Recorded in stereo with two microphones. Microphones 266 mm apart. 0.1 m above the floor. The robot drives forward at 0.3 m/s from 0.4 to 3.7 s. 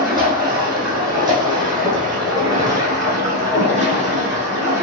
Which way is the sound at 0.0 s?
15° right (ahead or behind).